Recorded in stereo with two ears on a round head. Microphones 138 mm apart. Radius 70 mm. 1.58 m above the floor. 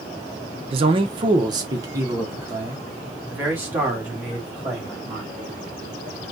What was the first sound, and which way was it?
A man speaking, 35° right (ahead or behind).